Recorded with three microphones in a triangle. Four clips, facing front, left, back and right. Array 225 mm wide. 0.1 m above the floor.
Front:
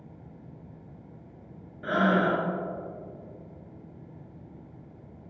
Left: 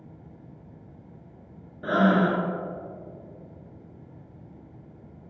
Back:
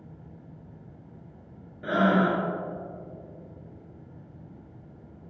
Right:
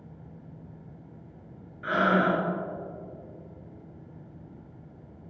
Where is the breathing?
95° left, 1.9 m.